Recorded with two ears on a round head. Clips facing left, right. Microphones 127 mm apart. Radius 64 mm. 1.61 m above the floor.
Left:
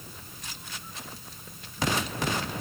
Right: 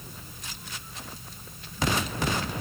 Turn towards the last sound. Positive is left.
No sound to turn to.